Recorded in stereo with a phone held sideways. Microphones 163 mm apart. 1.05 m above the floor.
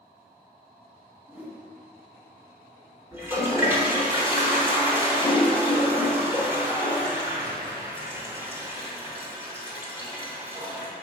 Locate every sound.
1.3 s a whoosh: 10° right (ahead or behind), 1.3 m
3.1 s a toilet flushing: 15° right (ahead or behind), 1.3 m